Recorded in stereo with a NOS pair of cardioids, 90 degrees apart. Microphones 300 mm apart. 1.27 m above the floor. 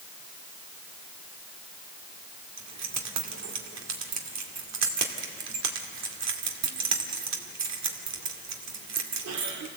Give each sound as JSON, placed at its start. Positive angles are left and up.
{"t": 2.6, "sound": "keys jangling", "azimuth_deg": -65, "distance_m": 2.5}